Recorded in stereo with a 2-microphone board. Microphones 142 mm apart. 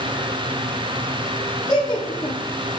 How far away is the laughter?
About 4.5 m.